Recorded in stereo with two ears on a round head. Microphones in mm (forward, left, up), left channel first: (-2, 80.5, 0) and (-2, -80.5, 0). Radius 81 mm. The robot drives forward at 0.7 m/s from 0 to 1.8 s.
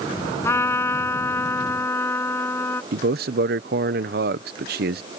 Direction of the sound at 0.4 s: 15° left (ahead or behind).